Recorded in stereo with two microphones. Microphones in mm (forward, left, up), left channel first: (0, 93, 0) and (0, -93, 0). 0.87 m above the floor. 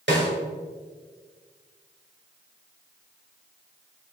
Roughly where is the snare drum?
Right.